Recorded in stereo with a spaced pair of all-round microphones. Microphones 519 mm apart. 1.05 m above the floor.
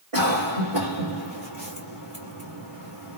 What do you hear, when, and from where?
0.1 s a cough: 75° right (ahead or behind), 1.6 m